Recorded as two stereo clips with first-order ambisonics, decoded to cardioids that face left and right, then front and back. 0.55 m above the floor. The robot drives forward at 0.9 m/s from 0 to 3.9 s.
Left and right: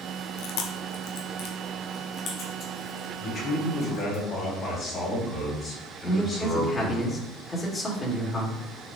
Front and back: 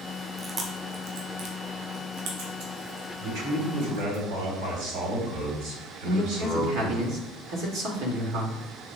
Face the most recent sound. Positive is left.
turn(degrees=170)